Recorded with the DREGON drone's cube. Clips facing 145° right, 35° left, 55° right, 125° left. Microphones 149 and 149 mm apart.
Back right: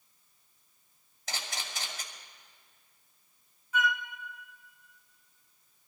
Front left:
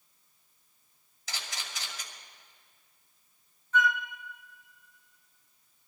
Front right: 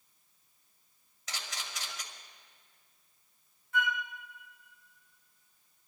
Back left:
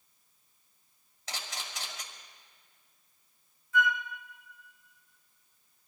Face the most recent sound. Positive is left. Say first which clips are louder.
# front left 3 dB, back left 4 dB
turn(degrees=-65)